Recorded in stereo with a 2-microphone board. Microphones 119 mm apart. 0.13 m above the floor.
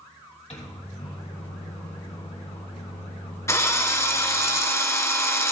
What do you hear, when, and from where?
0.5 s a microwave: 65° left (ahead or behind), 3 m
3.5 s a drill: 25° left (ahead or behind), 1.2 m